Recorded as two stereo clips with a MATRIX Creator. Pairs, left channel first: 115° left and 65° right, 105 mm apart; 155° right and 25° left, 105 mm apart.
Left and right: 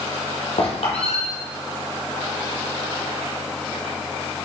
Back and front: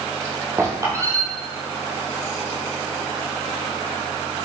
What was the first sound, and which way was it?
A squeak, 85° left.